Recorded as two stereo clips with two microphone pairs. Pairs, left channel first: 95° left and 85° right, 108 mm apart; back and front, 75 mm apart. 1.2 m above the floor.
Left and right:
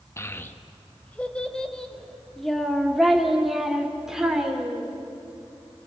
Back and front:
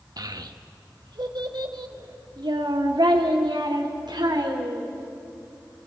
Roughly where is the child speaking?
Ahead left.